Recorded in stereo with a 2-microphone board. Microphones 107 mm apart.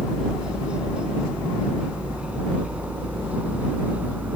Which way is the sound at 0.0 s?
10° right (ahead or behind).